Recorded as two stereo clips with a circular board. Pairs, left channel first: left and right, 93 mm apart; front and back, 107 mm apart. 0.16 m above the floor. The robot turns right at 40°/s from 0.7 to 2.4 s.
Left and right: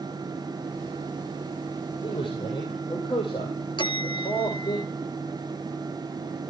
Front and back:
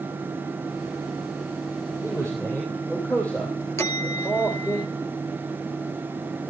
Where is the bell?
65° left, 1.4 m.